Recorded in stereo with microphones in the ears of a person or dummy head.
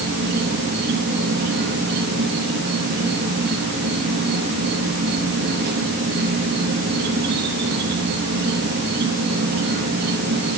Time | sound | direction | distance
0.0 | an insect | 50° right (ahead or behind) | 3 m